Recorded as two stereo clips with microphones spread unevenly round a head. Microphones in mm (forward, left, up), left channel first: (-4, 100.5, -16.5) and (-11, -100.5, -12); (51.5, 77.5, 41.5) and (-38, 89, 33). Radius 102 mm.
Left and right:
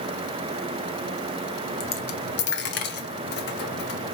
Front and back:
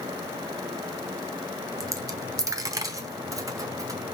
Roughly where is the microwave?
No microwave in this recording.